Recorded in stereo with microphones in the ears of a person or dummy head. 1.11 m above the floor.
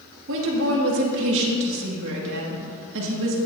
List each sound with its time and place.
0.3 s a woman speaking: 75° right (ahead or behind), 1.9 m